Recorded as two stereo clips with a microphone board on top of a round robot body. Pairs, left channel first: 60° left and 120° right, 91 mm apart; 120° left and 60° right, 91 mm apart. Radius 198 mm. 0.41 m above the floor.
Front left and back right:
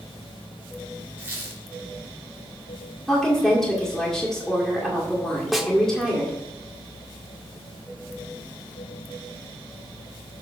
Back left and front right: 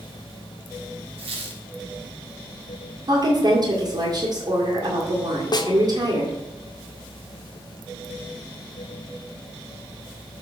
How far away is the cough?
I don't hear a cough.